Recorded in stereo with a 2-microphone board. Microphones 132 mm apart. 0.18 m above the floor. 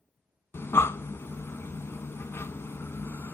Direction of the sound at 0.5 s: 20° left (ahead or behind).